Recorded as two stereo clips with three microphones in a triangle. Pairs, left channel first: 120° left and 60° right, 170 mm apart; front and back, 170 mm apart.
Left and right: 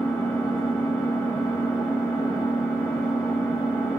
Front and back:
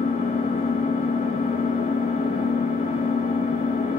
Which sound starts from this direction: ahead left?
An engine running, at 0.0 s.